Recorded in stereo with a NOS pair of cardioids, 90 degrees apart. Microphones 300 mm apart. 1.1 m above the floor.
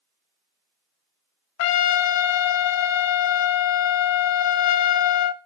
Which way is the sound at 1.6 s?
70° left.